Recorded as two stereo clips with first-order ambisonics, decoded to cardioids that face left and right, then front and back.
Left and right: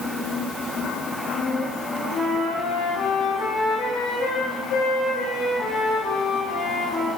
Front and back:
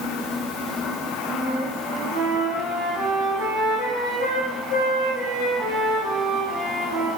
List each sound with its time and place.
1.3 s a flute: 45° left, 4 m